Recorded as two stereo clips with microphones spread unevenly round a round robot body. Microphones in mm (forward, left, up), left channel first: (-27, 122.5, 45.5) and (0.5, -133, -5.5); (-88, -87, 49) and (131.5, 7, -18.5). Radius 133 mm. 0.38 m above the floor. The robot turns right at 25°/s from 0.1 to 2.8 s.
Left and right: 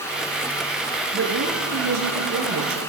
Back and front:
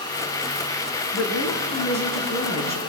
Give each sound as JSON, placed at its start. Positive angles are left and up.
{"t": 1.1, "sound": "a woman speaking", "azimuth_deg": -125, "distance_m": 6.5}